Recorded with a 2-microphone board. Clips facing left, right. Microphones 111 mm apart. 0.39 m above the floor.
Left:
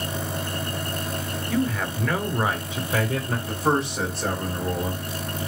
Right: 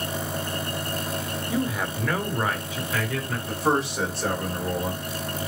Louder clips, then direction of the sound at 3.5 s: Even; 5° right (ahead or behind).